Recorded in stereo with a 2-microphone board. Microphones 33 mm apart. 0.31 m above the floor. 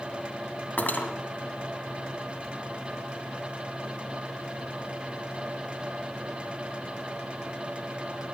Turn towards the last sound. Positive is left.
turn(degrees=60)  # may be behind; listen again after turning